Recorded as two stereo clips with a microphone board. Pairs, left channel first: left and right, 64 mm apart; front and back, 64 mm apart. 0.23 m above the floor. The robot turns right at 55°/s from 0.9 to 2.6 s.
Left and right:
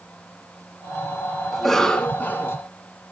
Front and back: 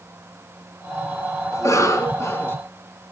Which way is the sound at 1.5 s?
5° right.